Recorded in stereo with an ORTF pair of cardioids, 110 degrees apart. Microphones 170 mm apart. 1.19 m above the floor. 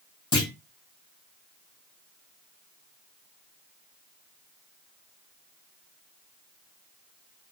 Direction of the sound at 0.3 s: 30° left.